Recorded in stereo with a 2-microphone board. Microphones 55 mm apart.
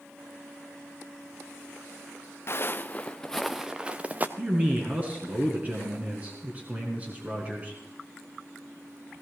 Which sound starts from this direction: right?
A man speaking, at 4.4 s.